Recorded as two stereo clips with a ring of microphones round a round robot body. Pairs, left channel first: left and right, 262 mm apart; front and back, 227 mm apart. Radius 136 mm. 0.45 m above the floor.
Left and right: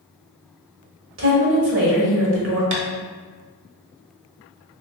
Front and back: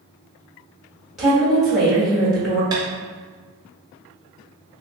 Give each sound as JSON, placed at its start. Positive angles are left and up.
{"t": 1.2, "sound": "a woman speaking", "azimuth_deg": -90, "distance_m": 1.3}
{"t": 2.7, "sound": "tapping", "azimuth_deg": -105, "distance_m": 0.7}